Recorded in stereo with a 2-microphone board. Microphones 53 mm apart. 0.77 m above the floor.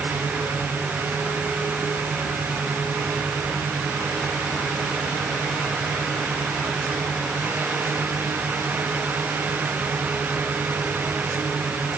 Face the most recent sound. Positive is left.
No sound to turn to.